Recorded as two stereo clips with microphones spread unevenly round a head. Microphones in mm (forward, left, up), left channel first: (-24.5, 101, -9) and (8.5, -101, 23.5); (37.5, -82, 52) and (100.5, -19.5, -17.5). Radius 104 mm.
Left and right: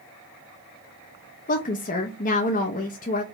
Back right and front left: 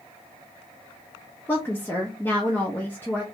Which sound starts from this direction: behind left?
A woman speaking, at 1.5 s.